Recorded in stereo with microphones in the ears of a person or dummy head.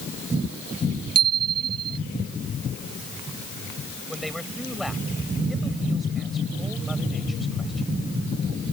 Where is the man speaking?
Centre (ahead or behind).